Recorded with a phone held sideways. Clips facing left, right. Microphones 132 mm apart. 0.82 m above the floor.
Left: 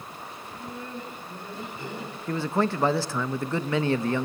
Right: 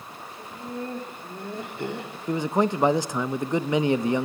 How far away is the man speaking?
About 0.6 m.